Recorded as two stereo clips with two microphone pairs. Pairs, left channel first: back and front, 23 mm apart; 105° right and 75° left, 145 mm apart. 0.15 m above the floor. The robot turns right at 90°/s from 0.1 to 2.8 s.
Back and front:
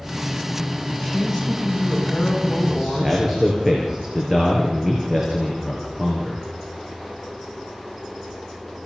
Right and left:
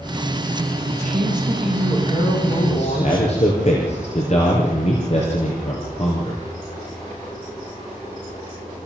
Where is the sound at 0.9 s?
90° left, 8 m; by 3.3 s 95° right, 8 m.